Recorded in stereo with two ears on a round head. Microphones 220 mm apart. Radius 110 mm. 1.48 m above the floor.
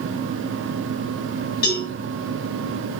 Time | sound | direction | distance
1.6 | a cowbell | 40° left (ahead or behind) | 5 m